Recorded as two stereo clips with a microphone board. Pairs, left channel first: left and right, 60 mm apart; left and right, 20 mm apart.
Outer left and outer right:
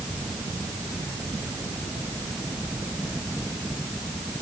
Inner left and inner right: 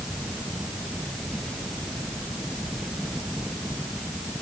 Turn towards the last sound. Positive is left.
No sound to turn to.